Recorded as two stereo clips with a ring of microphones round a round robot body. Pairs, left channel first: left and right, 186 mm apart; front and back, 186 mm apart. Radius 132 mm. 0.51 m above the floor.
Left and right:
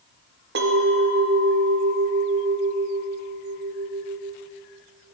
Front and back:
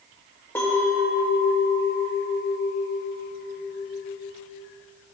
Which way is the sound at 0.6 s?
80° right.